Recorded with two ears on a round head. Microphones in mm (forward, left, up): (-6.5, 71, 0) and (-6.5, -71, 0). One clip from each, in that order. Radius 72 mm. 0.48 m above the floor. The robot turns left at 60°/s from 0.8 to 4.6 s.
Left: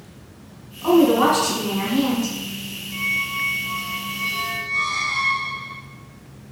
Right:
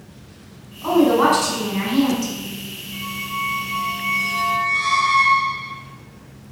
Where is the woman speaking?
Straight ahead, 1.7 m; by 2.3 s 90° right, 1.7 m.